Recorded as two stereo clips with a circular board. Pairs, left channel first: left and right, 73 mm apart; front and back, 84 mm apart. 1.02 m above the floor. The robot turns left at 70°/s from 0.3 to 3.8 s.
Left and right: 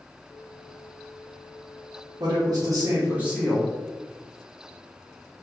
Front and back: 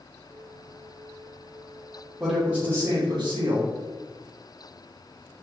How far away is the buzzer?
I don't hear a buzzer.